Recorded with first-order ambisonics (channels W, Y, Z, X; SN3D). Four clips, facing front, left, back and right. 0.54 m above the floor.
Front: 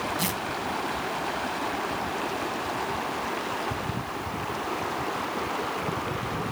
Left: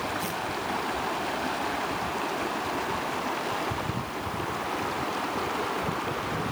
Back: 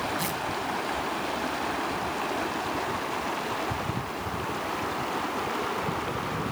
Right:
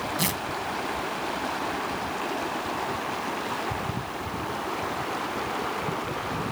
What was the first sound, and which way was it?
Tearing paper, 75° right.